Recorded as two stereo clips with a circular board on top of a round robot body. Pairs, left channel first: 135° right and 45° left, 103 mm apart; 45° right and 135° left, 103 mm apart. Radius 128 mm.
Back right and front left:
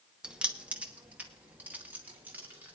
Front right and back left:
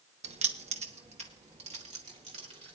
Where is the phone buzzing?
No phone buzzing in this recording.